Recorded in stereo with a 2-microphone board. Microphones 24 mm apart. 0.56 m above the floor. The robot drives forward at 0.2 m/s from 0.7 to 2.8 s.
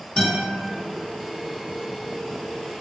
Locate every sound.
0.2 s a guitar: 45° left (ahead or behind), 1.5 m